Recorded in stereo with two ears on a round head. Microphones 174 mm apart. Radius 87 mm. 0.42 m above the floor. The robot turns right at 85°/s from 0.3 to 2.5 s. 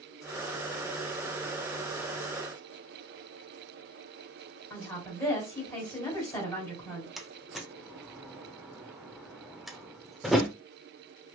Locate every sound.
4.7 s a woman speaking: 15° left (ahead or behind), 2.0 m
7.2 s a door slam: centre (ahead or behind), 0.5 m